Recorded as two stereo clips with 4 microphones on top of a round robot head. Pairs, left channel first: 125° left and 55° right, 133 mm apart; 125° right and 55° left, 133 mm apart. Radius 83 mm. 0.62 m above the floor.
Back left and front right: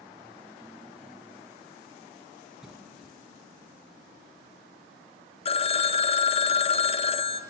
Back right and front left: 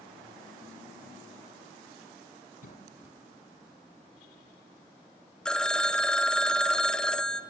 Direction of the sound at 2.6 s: 145° right.